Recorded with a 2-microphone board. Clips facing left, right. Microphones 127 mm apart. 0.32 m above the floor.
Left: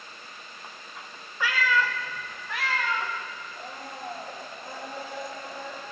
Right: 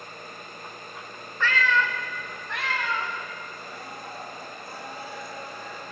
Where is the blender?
50° left (ahead or behind), 3 m.